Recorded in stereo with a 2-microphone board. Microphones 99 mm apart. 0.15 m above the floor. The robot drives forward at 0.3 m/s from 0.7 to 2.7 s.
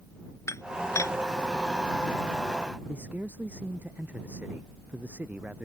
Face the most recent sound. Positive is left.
turn(degrees=-15)  # may be behind; listen again after turning